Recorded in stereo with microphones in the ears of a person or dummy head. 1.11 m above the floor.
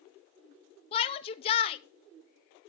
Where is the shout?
30° left (ahead or behind), 0.7 m.